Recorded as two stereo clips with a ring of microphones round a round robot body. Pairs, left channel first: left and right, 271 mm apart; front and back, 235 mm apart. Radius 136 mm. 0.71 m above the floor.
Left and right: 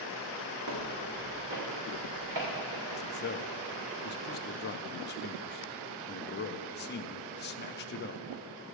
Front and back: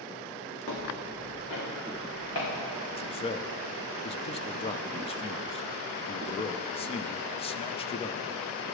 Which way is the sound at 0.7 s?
45° right.